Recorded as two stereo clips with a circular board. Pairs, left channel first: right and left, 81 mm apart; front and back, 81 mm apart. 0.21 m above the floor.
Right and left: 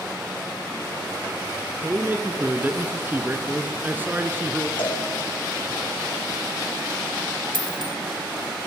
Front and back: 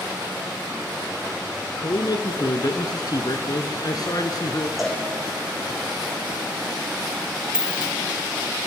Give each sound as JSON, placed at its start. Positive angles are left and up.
{"t": 1.8, "sound": "a man speaking", "azimuth_deg": 30, "distance_m": 2.5}
{"t": 4.8, "sound": "a cowbell", "azimuth_deg": -90, "distance_m": 7.5}
{"t": 7.5, "sound": "a dropped coin", "azimuth_deg": 105, "distance_m": 0.6}